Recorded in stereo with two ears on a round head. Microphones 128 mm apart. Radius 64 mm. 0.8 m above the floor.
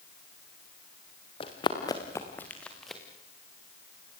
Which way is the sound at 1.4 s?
35° left (ahead or behind).